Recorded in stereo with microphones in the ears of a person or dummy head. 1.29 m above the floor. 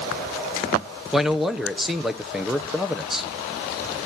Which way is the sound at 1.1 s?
Centre (ahead or behind).